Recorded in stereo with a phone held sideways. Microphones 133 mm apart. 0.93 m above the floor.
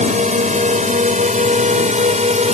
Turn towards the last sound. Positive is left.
turn(degrees=-65)  # may be behind; listen again after turning